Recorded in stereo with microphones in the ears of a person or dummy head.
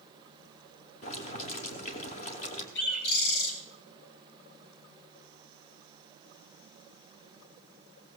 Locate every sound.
1.0 s boiling: 40° left (ahead or behind), 2.5 m
2.8 s a bird: 60° left (ahead or behind), 3.5 m